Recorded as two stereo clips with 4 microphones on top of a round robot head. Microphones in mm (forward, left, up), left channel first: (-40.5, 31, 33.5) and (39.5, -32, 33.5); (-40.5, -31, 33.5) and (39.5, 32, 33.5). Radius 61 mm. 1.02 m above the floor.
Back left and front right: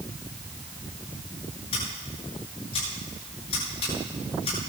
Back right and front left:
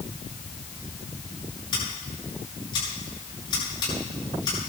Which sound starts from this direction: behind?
Scissors, at 1.7 s.